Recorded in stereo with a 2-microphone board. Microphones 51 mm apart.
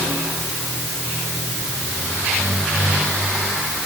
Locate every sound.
Only background noise.